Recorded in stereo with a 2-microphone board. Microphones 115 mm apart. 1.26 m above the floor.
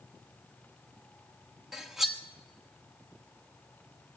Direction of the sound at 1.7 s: 5° right (ahead or behind).